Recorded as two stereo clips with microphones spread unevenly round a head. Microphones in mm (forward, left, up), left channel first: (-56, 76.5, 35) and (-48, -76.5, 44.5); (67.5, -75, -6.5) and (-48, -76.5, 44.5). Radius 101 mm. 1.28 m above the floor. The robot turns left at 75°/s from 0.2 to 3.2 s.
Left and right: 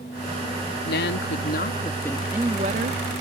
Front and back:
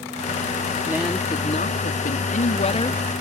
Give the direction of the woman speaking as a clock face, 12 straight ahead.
8 o'clock.